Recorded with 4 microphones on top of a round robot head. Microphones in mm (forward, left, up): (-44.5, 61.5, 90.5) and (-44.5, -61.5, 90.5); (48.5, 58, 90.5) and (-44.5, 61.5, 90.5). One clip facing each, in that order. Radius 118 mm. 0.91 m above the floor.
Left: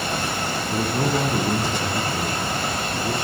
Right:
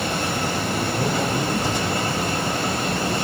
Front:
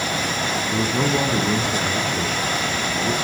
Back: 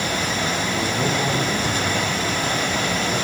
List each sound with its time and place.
0.7 s a man speaking: 40° left, 9.5 m; by 3.1 s 30° left, 9 m